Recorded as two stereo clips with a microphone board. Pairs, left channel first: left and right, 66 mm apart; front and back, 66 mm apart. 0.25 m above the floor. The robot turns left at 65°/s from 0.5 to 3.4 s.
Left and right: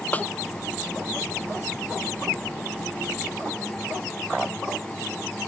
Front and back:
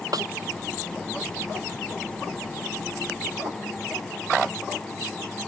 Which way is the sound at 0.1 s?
155° left.